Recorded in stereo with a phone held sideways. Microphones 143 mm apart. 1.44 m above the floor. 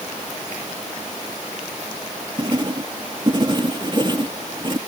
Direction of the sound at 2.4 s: 35° right (ahead or behind).